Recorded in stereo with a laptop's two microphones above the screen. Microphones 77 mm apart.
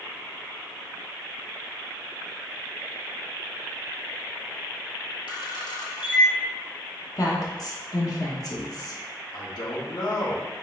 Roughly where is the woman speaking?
Left.